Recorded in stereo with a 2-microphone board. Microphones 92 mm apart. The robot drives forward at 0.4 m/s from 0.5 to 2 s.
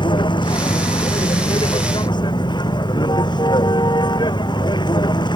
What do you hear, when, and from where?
0.0 s a vehicle: 55° left (ahead or behind); by 5.4 s 50° left (ahead or behind)